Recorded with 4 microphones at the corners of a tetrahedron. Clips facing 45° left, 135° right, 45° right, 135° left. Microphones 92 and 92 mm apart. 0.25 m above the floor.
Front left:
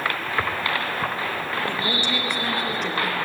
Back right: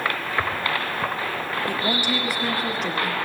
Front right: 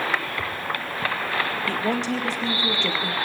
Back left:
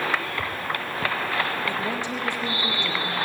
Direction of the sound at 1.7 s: 55° right.